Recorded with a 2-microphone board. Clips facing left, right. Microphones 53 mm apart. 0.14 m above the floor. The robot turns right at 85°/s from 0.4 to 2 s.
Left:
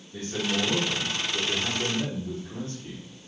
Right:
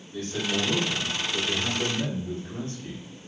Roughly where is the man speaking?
Centre.